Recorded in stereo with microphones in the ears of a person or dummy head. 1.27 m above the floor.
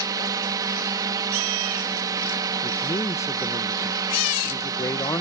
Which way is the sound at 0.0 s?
20° right (ahead or behind).